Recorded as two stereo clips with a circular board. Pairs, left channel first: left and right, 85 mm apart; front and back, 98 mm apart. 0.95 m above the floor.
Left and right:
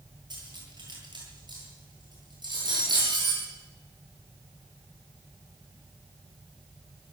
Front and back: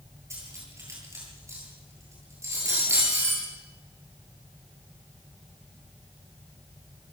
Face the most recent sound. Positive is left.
turn(degrees=-120)